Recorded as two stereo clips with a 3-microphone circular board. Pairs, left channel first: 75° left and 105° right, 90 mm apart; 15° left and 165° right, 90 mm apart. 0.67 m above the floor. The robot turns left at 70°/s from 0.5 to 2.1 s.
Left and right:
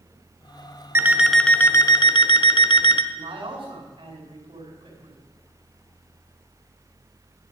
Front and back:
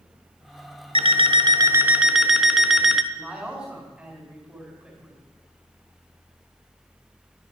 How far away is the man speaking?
About 4.5 m.